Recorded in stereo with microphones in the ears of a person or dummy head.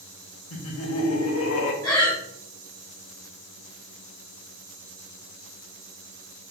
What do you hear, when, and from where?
0.5 s laughter: 85° left, 1.1 m
1.8 s breathing: 20° left (ahead or behind), 1.6 m